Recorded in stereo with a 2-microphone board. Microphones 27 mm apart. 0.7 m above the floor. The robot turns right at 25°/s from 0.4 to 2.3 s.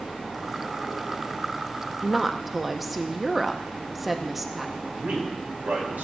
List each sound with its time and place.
2.0 s a woman speaking: 5° right (ahead or behind), 0.7 m
5.0 s a man speaking: 75° right (ahead or behind), 3.5 m